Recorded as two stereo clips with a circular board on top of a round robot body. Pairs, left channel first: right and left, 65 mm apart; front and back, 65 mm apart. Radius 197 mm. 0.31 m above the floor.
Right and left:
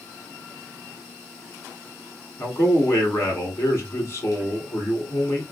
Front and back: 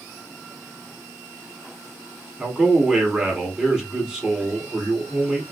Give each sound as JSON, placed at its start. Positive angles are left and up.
{"t": 2.4, "sound": "a man speaking", "azimuth_deg": -105, "distance_m": 1.6}